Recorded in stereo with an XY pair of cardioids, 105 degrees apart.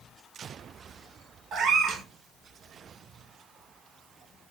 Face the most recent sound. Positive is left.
turn(degrees=-60)